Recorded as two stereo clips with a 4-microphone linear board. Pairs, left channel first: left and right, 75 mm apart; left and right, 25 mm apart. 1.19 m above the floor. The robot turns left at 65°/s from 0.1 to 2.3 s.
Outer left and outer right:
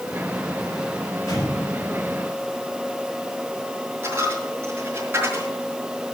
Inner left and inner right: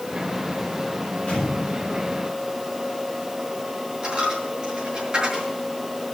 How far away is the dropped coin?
About 5.5 m.